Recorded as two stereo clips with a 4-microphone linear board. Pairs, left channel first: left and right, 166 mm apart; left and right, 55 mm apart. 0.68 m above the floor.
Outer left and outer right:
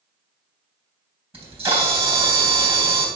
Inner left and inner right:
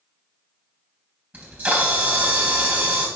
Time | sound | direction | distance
1.3 | a camera shutter | 35° right (ahead or behind) | 3.5 m